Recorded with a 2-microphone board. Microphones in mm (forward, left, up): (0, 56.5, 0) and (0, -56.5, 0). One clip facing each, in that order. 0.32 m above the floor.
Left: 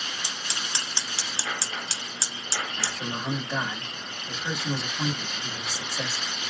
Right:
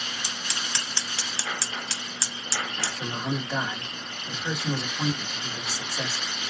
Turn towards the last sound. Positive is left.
turn(degrees=-5)  # may be behind; listen again after turning